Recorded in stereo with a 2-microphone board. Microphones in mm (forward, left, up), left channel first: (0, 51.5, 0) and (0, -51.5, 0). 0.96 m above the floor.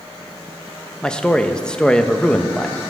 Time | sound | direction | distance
1.0 | a man speaking | 10° left (ahead or behind) | 0.6 m